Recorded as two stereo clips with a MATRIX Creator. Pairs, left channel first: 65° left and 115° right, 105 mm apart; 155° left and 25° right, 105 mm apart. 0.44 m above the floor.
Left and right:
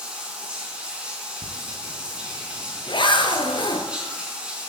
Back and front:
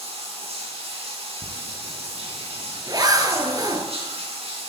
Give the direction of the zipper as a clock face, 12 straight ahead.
11 o'clock.